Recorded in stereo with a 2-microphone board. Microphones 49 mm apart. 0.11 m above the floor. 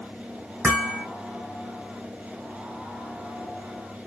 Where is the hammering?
35° right (ahead or behind), 1.9 m.